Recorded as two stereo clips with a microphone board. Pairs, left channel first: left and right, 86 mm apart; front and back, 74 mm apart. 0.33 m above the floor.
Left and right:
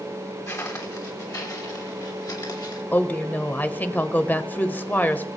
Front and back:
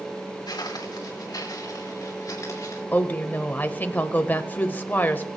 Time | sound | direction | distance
0.5 | footsteps | 30° left | 3 m
2.9 | a woman speaking | 40° left | 1.1 m